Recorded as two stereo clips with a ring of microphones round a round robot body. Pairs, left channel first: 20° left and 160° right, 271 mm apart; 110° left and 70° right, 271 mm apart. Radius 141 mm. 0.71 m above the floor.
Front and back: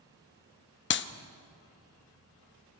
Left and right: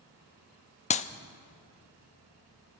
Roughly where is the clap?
Ahead left.